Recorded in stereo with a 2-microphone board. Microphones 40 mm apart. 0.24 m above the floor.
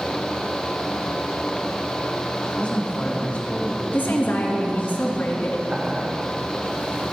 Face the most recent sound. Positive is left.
turn(degrees=-25)  # may be behind; listen again after turning